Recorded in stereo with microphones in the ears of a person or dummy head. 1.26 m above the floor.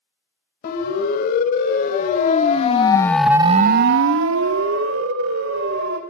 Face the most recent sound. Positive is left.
turn(degrees=-80)